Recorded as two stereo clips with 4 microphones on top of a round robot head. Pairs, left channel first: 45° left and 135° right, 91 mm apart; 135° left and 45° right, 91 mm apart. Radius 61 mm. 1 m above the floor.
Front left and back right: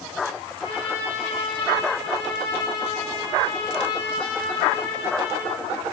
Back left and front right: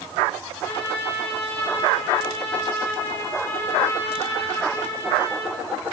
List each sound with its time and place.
0.6 s a trumpet: 80° left, 7.5 m